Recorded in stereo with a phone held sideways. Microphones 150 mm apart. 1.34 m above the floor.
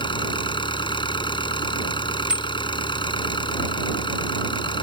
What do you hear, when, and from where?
0.0 s an engine running: 35° left (ahead or behind)
2.3 s a bicycle bell: 5° right (ahead or behind)